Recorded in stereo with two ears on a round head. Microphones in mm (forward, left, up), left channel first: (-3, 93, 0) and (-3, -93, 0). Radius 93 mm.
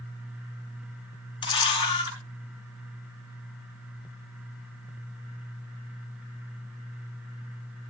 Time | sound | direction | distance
1.4 | a camera shutter | 25° left (ahead or behind) | 5.5 m